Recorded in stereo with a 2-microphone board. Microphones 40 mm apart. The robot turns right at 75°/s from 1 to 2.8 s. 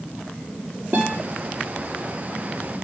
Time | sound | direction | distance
0.9 | a guitar | 65° right (ahead or behind) | 5 m